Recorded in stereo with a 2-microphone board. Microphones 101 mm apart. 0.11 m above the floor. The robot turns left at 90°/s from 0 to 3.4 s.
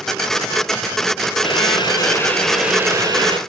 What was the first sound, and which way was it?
Boiling, 105° left.